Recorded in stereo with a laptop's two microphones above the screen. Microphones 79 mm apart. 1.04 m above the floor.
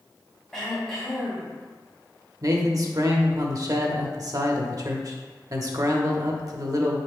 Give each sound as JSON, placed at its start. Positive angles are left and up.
{"t": 0.5, "sound": "throat clearing", "side_deg": 10, "distance_m": 2.5}
{"t": 2.4, "sound": "a man speaking", "side_deg": -50, "distance_m": 1.0}